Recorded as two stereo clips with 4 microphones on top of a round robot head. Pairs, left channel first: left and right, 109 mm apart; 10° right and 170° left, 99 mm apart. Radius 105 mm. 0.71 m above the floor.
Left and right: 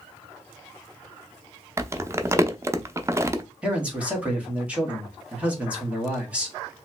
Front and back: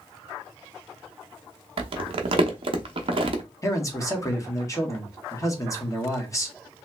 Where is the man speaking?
20° right, 1.2 m.